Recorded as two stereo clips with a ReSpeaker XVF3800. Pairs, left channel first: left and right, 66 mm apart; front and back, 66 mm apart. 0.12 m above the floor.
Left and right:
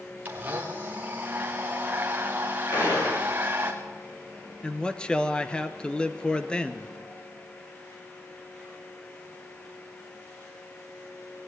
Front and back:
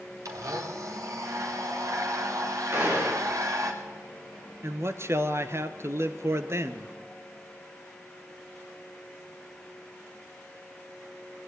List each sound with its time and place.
0.2 s a blender: 150° right, 5.5 m
2.7 s a gunshot: 125° left, 9 m
4.6 s a man speaking: 160° left, 1.6 m